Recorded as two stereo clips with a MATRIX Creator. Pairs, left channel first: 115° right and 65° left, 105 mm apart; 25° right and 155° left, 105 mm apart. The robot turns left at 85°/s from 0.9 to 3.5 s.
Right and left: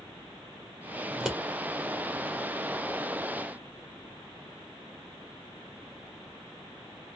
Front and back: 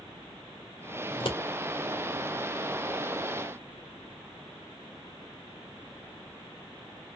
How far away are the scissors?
About 1.6 m.